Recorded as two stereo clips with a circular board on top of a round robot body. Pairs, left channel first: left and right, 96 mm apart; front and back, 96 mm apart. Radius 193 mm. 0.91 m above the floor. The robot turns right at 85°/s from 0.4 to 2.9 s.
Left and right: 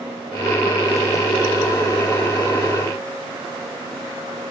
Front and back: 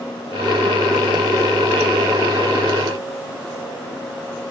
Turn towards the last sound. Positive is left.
No sound to turn to.